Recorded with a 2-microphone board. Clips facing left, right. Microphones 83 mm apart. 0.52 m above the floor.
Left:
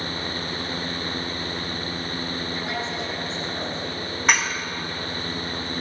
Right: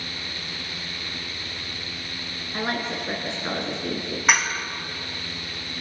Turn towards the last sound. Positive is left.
turn(degrees=0)  # may be behind; listen again after turning